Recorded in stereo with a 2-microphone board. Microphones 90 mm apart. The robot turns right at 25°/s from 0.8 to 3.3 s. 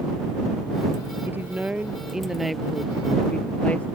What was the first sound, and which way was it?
A woman speaking, 30° right.